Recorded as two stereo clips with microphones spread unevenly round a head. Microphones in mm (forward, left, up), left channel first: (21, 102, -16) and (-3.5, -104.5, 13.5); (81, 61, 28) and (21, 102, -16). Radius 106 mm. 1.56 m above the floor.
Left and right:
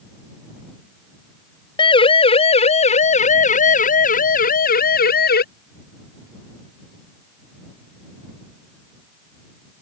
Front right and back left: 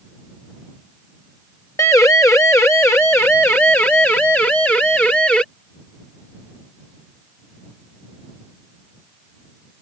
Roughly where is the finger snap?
No finger snap in this recording.